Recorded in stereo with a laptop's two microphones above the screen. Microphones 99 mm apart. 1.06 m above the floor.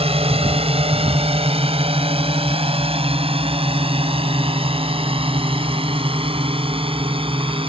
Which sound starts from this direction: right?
A drone, at 0.0 s.